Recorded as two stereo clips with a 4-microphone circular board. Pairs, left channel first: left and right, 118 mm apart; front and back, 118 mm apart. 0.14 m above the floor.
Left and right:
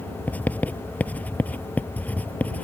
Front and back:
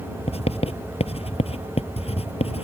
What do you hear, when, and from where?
0.3 s writing: 15° left